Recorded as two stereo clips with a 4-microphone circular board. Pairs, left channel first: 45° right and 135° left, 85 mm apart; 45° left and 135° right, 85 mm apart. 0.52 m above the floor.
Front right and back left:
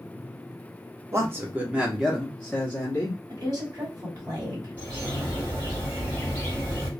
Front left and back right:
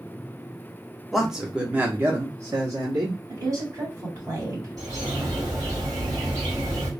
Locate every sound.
1.1 s a man speaking: 135° left, 0.8 m; by 3.2 s 105° right, 1.1 m
3.3 s a woman speaking: straight behind, 1.6 m
4.8 s a bird: 160° right, 1.8 m